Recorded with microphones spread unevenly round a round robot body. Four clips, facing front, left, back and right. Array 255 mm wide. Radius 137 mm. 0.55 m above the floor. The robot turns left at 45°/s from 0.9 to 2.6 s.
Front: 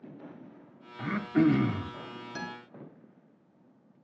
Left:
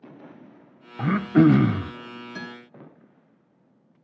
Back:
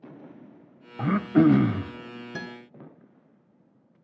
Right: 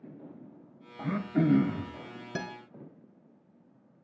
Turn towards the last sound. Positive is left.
turn(degrees=-130)